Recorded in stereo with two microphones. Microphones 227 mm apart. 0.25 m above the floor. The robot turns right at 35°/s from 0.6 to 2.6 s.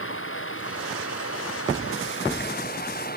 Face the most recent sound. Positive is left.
turn(degrees=135)